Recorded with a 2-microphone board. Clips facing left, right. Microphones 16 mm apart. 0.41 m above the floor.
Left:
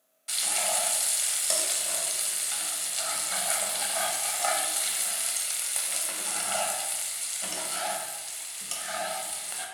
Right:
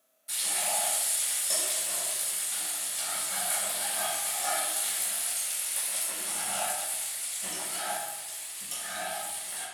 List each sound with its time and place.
0.3 s frying: 50° left (ahead or behind), 0.7 m